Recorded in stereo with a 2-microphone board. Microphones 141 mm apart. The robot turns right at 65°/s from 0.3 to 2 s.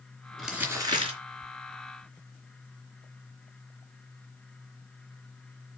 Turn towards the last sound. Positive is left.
turn(degrees=-75)